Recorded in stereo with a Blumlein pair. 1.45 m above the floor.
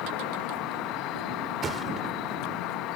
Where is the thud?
20° right.